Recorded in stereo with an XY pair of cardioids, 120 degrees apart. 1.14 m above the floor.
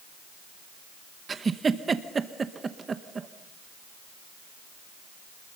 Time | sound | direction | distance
1.3 | a giggle | 30° right | 1.0 m